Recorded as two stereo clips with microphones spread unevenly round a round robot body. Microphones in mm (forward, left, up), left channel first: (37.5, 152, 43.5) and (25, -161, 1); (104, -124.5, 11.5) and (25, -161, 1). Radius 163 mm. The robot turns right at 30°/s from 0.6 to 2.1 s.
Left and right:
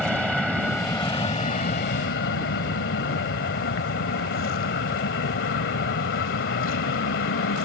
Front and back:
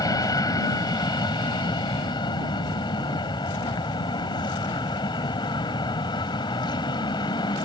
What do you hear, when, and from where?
0.0 s an aircraft: 5° right; by 7.7 s 40° left